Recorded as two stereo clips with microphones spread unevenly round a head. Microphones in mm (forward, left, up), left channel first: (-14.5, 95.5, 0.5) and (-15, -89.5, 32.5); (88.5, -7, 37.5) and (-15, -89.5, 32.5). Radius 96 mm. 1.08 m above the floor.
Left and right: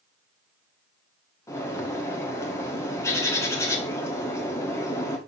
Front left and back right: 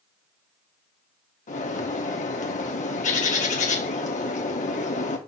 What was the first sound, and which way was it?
A bird, 10° left.